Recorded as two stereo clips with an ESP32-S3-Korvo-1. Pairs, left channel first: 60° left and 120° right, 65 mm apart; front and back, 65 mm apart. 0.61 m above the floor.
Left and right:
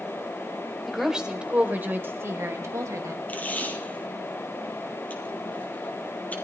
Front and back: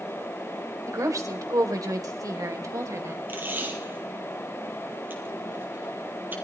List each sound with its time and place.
0.9 s a woman speaking: 150° left, 2.5 m; by 3.2 s 145° right, 3 m
3.3 s tape being pulled: 125° left, 3 m